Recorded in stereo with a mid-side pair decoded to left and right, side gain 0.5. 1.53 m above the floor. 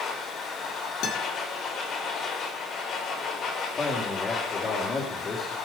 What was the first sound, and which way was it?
A machine running, 60° left.